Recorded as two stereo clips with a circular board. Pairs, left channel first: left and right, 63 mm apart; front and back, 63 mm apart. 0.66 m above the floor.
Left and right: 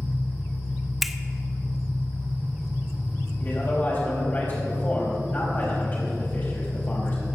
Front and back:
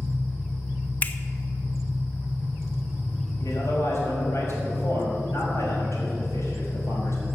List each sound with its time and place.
0.0 s an engine running: 10° left, 4 m
1.0 s a finger snap: 5° right, 0.7 m
3.4 s a man speaking: 35° left, 5 m